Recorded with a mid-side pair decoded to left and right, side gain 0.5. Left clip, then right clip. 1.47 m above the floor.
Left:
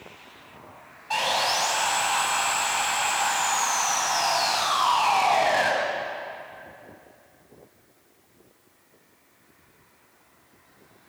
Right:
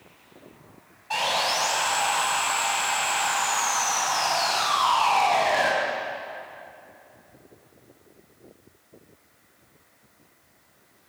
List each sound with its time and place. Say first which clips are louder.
1.1 s sawing: even; 10° left, 4 m